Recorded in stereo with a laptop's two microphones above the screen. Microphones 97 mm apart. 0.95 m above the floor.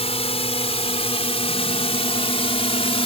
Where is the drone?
75° left (ahead or behind); by 3.0 s 65° left (ahead or behind).